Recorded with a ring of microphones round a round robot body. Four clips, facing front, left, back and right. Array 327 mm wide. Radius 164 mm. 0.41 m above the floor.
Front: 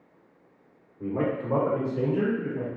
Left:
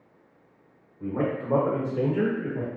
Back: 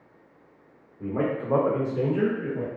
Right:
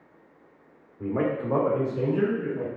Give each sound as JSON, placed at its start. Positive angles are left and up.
{"t": 1.0, "sound": "a man speaking", "azimuth_deg": -95, "distance_m": 0.9}